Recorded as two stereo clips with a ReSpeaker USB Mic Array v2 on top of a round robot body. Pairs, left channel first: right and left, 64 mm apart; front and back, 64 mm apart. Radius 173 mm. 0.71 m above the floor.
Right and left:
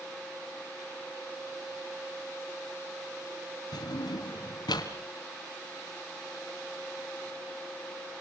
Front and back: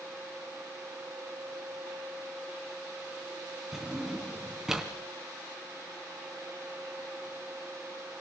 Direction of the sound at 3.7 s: 95° right.